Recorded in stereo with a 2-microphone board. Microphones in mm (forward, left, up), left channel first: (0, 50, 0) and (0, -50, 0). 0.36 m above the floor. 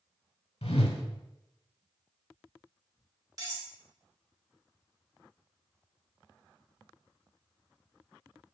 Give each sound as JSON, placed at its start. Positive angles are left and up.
{"t": 0.6, "sound": "a whoosh", "side_deg": 80, "distance_m": 0.6}
{"t": 3.4, "sound": "cutlery clinking", "side_deg": -40, "distance_m": 0.8}